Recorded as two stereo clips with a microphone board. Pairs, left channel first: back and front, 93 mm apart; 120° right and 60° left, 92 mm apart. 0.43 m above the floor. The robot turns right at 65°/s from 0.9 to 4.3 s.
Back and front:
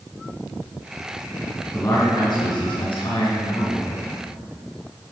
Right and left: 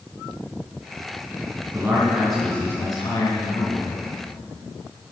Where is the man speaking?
115° left, 4.5 m; by 4.1 s 90° right, 4.5 m.